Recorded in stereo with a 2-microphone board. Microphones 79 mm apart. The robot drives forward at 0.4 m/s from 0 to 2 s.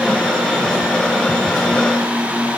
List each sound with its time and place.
Only background noise.